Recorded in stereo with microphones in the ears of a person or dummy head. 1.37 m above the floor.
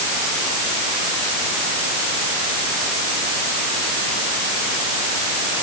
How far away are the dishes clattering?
I don't hear dishes clattering.